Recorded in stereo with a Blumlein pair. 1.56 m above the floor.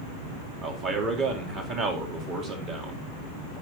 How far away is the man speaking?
About 3.5 m.